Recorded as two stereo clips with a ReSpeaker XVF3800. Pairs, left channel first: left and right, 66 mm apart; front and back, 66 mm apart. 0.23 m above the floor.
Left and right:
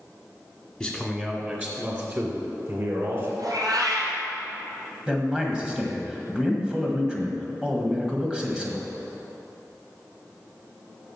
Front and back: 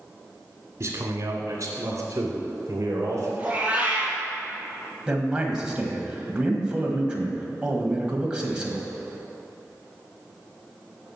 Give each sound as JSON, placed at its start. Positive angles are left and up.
{"t": 0.8, "sound": "a man speaking", "azimuth_deg": 170, "distance_m": 1.4}
{"t": 3.4, "sound": "a cat meowing", "azimuth_deg": -110, "distance_m": 2.5}
{"t": 5.1, "sound": "a man speaking", "azimuth_deg": -135, "distance_m": 1.5}